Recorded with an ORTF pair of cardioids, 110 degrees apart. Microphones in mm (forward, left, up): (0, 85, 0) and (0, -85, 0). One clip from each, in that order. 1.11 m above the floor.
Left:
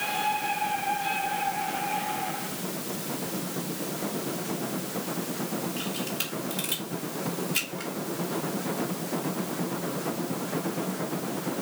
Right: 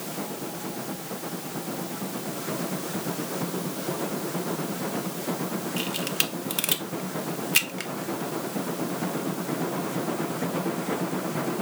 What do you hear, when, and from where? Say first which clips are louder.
5.8 s a camera shutter: right 4 dB; 50° right, 0.8 m